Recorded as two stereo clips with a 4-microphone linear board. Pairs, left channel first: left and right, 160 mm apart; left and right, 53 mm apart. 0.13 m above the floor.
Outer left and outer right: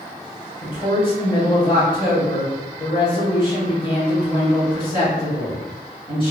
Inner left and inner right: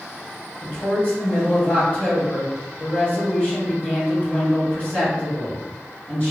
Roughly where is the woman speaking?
Left.